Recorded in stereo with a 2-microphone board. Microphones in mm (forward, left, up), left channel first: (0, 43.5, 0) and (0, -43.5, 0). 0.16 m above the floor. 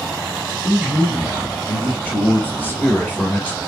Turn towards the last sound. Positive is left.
turn(degrees=20)  # may be behind; listen again after turning